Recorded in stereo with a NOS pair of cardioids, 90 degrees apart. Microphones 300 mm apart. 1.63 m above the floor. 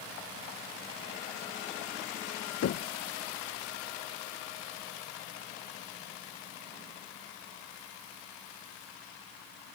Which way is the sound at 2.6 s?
55° left.